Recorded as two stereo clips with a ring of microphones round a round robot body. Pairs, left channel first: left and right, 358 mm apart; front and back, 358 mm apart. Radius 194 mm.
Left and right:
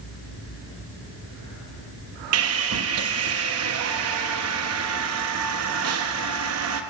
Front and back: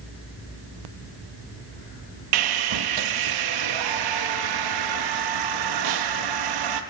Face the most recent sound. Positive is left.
turn(degrees=-145)